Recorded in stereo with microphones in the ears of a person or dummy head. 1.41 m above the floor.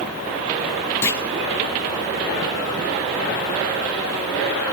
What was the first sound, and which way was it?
A clunk, 15° left (ahead or behind).